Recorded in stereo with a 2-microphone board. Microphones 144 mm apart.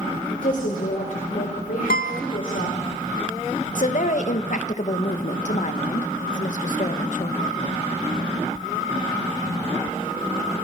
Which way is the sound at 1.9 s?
80° left.